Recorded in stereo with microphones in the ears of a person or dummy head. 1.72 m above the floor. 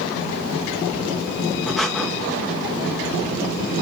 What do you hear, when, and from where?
1.7 s breathing: 5° right (ahead or behind), 1.9 m